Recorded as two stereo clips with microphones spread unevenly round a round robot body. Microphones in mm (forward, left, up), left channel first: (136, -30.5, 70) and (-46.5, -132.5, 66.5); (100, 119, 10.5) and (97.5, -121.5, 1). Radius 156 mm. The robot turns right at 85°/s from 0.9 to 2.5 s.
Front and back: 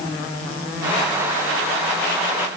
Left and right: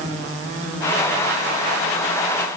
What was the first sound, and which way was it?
Only background noise.